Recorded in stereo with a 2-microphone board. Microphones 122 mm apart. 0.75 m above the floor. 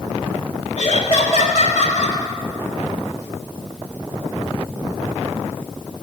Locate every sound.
0.8 s laughter: 75° left (ahead or behind), 2 m; by 2.2 s 80° left, 3.5 m